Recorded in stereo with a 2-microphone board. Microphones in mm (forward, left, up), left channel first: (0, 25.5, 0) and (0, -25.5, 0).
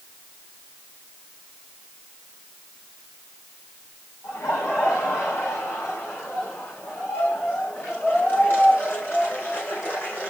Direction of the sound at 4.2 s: 70° left (ahead or behind).